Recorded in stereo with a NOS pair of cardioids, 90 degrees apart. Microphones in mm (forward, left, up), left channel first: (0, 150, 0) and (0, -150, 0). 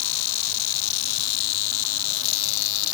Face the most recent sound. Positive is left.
No sound to turn to.